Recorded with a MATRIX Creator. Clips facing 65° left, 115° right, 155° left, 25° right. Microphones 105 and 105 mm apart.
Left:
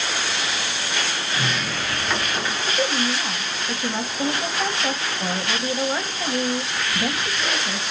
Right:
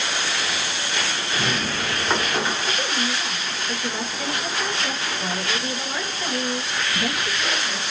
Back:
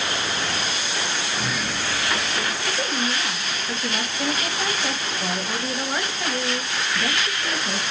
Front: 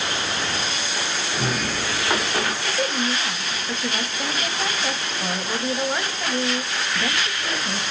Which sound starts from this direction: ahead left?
A woman speaking, at 2.7 s.